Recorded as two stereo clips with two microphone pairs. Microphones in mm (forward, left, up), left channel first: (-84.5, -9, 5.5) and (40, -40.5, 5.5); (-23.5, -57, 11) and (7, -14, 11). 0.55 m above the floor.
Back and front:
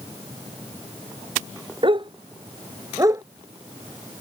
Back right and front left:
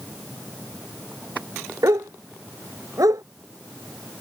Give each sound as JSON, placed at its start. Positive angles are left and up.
{"t": 1.8, "sound": "a dog barking", "azimuth_deg": 35}